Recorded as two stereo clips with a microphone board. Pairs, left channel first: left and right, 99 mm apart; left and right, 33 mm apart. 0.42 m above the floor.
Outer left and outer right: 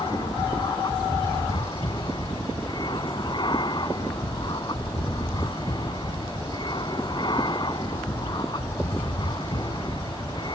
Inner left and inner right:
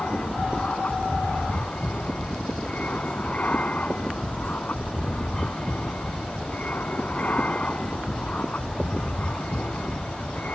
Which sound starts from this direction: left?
An aircraft, at 0.0 s.